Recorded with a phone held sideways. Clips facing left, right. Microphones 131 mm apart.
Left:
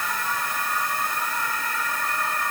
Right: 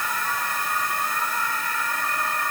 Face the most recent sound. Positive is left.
No sound to turn to.